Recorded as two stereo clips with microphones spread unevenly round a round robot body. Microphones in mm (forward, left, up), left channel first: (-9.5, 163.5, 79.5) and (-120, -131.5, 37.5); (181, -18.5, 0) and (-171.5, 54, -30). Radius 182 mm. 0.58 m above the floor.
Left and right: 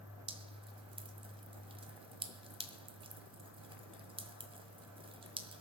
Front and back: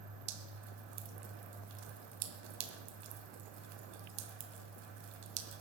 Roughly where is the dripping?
Behind.